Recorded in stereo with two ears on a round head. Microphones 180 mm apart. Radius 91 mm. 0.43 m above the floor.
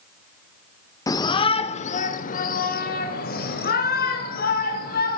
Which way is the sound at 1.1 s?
15° left (ahead or behind).